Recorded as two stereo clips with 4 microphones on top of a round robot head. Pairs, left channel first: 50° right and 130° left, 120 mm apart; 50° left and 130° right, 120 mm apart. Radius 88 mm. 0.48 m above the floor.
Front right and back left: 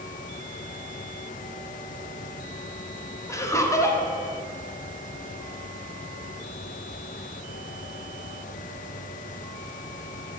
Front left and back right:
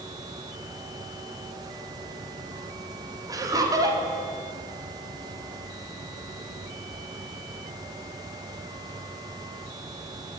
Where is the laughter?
95° right, 0.9 m.